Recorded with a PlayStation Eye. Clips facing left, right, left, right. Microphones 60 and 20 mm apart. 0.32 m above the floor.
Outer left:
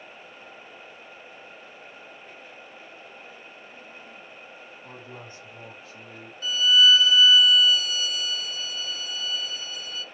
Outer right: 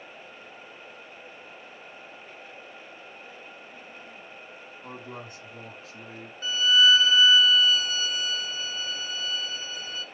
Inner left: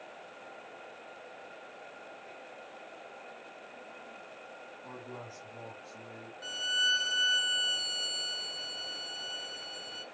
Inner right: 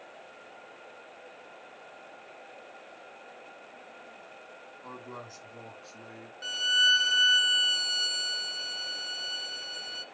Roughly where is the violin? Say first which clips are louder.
Outer left 1 dB, inner right 6 dB; right.